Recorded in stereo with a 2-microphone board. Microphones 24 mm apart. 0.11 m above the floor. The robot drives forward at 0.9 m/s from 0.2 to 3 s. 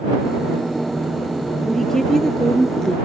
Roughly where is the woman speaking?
Centre.